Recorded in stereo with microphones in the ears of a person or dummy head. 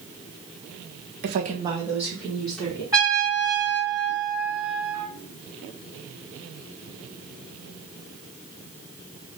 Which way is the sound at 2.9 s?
20° right (ahead or behind).